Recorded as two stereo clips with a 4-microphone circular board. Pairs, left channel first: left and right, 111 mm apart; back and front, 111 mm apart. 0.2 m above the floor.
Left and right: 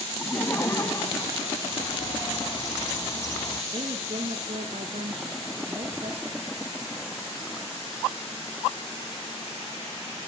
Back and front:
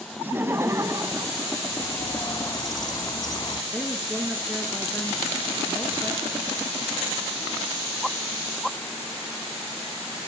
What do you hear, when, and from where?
0.2 s laughter: 45° left, 1.0 m; by 1.6 s 40° left, 1.5 m
1.6 s a bird: 140° left, 0.8 m
3.7 s a woman speaking: 95° right, 3.5 m